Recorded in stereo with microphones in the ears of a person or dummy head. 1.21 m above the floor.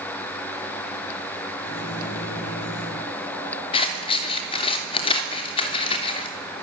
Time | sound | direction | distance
1.6 | a microwave | 55° left (ahead or behind) | 4.5 m
3.7 | scissors | 30° left (ahead or behind) | 3 m